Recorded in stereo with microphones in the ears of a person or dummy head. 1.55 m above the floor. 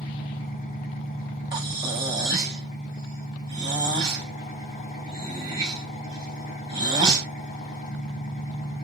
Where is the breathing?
25° right (ahead or behind), 1.1 m.